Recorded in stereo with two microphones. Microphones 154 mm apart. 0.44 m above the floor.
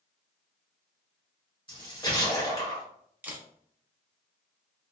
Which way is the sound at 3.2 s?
15° right (ahead or behind).